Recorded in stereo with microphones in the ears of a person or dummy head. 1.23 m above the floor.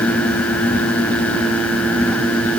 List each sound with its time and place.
Only background noise.